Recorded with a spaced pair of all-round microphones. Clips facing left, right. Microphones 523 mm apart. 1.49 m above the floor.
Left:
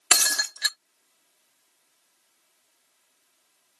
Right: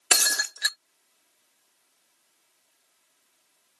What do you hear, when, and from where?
0.1 s breaking glass: 25° left (ahead or behind)